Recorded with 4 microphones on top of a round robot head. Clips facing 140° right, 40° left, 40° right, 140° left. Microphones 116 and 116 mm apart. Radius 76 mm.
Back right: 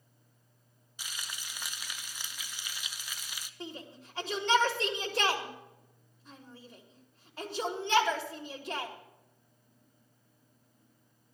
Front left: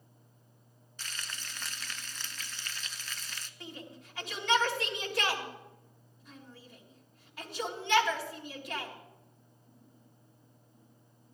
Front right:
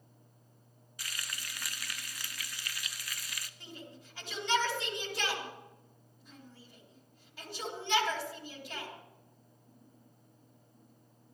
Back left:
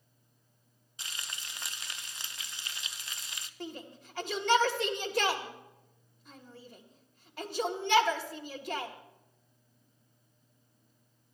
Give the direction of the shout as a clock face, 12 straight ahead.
6 o'clock.